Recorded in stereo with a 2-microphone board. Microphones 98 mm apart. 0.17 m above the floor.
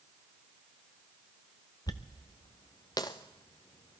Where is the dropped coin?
45° left (ahead or behind), 0.9 m.